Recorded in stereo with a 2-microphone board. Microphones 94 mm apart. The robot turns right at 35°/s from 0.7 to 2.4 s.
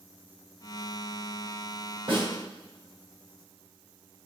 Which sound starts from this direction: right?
A snare drum, at 2.1 s.